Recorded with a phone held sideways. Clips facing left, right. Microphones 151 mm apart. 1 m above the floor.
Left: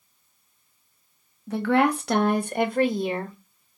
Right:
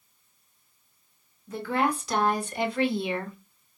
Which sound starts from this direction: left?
A woman speaking, at 1.5 s.